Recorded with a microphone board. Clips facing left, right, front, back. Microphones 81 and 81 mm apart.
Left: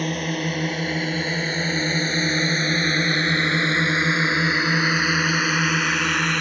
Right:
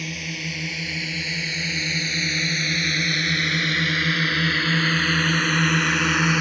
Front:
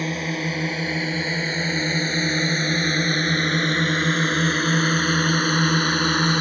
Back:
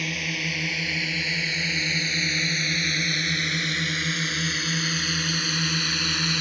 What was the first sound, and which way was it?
A drone, 55° left.